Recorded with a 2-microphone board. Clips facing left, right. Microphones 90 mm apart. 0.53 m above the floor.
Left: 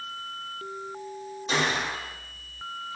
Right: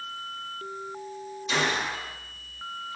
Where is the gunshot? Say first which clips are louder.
Even; 35° left (ahead or behind), 1.0 m.